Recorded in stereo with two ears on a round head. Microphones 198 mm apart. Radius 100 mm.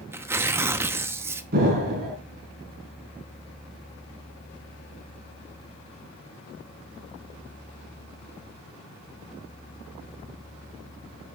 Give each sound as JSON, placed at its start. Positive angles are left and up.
{"t": 0.1, "sound": "tearing paper", "side_deg": -10, "distance_m": 0.9}
{"t": 1.5, "sound": "an explosion", "side_deg": -45, "distance_m": 4.5}